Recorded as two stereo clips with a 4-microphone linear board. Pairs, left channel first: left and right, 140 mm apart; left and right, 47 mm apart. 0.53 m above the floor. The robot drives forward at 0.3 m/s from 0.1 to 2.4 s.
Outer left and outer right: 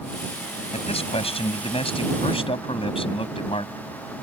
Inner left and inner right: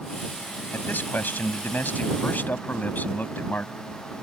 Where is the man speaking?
45° left (ahead or behind); by 3.8 s 40° left (ahead or behind).